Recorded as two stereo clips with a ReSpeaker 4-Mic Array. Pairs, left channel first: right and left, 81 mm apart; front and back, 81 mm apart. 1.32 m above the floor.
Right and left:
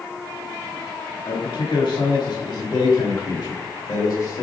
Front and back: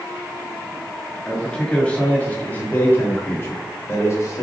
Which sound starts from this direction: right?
A man speaking, at 1.2 s.